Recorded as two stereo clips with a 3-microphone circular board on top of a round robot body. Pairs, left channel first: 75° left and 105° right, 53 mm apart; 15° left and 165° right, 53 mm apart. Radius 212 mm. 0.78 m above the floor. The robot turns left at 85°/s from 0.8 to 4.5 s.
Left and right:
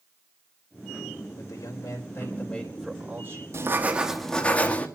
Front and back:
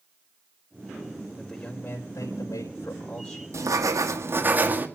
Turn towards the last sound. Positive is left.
turn(degrees=140)